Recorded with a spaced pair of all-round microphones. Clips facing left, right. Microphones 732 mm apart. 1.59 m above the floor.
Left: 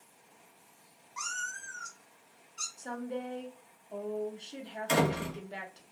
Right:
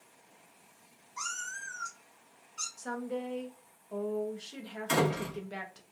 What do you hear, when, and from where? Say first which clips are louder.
1.2 s a cat meowing: left 1 dB; 30° left (ahead or behind), 1.1 m; by 2.7 s 15° right (ahead or behind), 1.0 m
2.8 s a woman speaking: right 1 dB; 45° right (ahead or behind), 0.6 m
4.9 s a door slam: even; 15° left (ahead or behind), 0.8 m